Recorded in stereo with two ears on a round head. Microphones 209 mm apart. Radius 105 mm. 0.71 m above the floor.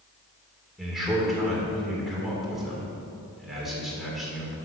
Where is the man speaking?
Centre (ahead or behind), 2.5 m.